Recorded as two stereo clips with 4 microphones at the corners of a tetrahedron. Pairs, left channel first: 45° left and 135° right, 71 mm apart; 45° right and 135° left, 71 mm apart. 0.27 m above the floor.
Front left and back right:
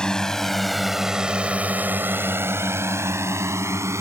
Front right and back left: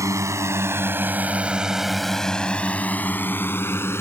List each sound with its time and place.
0.0 s a drone: 120° left; by 4.0 s 90° right